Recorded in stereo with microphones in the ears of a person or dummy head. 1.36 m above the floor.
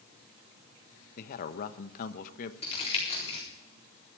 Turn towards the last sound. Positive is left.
turn(degrees=30)  # may be behind; listen again after turning